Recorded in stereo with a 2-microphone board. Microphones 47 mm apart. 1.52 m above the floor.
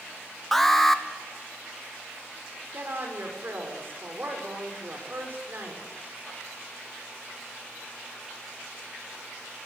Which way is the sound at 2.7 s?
50° right (ahead or behind).